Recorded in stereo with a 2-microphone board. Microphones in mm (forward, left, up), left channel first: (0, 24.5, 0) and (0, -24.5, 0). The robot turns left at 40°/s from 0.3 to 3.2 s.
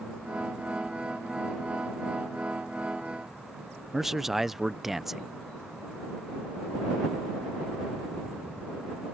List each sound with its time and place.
3.9 s a man speaking: 5° right (ahead or behind)